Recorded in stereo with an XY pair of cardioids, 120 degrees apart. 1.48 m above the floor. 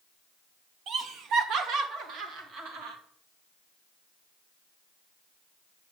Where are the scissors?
No scissors in this recording.